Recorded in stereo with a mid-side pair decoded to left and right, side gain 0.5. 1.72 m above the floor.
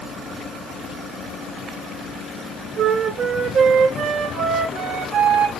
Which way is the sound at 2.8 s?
50° right.